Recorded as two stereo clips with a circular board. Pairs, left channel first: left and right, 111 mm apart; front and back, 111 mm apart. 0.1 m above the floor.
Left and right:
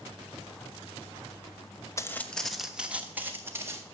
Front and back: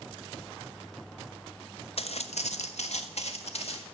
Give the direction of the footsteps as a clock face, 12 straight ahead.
11 o'clock.